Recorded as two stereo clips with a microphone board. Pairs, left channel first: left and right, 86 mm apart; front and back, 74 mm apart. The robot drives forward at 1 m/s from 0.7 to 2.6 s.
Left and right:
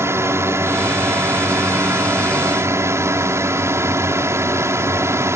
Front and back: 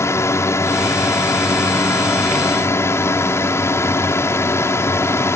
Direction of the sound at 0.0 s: 40° right.